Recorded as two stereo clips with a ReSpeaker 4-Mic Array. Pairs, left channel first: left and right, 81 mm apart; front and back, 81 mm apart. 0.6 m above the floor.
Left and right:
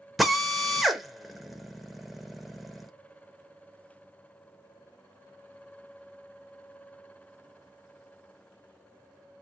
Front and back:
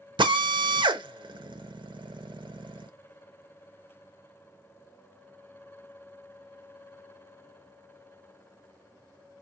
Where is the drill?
Straight behind, 0.8 m.